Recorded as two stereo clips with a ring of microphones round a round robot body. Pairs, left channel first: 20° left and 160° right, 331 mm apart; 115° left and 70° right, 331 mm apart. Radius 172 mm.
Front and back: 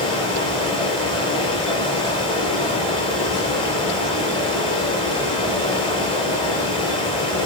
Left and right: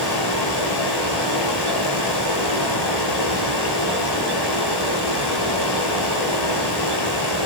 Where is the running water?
100° left, 6.5 m.